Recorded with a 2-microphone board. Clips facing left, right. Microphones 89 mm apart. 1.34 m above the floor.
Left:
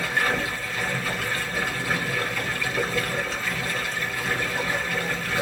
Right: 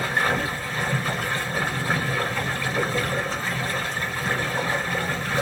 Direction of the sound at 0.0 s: 35° right (ahead or behind).